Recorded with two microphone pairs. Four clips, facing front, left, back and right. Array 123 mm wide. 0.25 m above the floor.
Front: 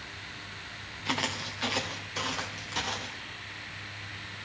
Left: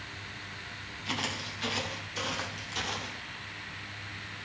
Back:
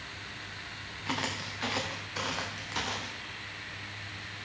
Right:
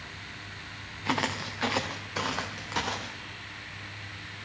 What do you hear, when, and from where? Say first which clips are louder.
1.1 s footsteps: right 7 dB, front 2 dB; 85° right, 1.3 m; by 3.2 s 100° right, 3 m